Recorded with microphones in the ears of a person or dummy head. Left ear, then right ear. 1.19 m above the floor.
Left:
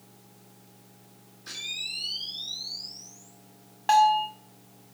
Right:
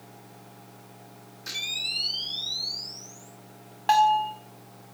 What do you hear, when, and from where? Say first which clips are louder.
1.5 s a camera shutter: right 4 dB; 25° right (ahead or behind), 3 m
3.9 s a bell: even; centre (ahead or behind), 1.5 m